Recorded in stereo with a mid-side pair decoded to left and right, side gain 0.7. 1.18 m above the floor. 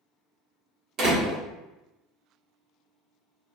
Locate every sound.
1.0 s a door slam: 50° right, 1.4 m